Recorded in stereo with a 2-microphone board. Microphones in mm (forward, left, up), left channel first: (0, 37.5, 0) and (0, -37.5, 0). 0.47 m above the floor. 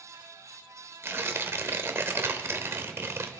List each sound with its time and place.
1.0 s tearing paper: 35° right (ahead or behind), 1.0 m